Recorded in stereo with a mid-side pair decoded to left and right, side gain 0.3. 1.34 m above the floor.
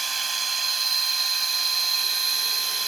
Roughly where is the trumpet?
No trumpet in this recording.